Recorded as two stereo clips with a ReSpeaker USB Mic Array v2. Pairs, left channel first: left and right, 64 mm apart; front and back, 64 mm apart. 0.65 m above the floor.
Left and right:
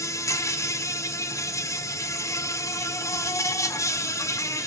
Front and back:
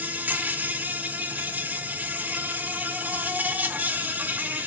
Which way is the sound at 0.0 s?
120° left.